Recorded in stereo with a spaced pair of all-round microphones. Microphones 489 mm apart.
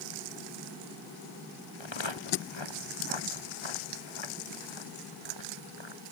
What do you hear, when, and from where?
1.8 s footsteps: 65° left (ahead or behind)